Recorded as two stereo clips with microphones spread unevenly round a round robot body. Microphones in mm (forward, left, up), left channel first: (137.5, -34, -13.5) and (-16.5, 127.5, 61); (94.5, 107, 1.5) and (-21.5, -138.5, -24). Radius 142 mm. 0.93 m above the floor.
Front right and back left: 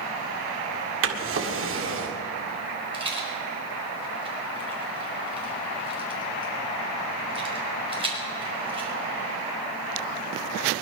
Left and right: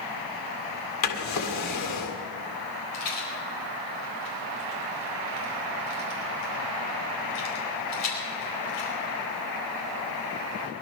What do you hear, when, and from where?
1.0 s a drawer: 100° left, 1.9 m
2.9 s a rattle: 65° left, 4.5 m